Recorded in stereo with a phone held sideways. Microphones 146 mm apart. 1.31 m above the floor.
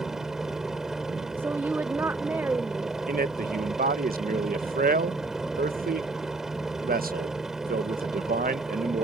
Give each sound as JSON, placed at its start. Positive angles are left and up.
{"t": 0.0, "sound": "a helicopter", "side_deg": -5}
{"t": 1.4, "sound": "a woman speaking", "side_deg": -15}
{"t": 3.1, "sound": "a man speaking", "side_deg": -90}